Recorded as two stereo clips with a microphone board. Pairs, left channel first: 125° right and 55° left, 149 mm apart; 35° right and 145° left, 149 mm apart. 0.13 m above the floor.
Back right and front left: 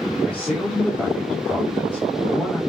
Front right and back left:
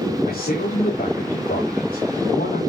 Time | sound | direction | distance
0.2 | a man speaking | 40° right | 6 m